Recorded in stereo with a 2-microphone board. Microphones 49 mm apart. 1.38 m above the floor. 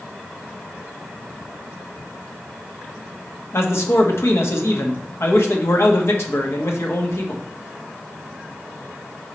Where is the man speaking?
60° left (ahead or behind), 1.2 m.